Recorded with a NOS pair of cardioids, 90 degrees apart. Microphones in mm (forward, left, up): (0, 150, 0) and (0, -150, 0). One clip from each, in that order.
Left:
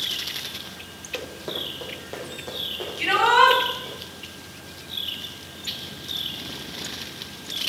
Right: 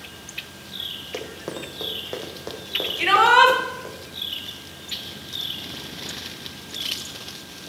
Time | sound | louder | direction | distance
1.1 | running footsteps | left 1 dB | 20° right | 3.5 m
3.0 | a shout | right 2 dB | 60° right | 4.5 m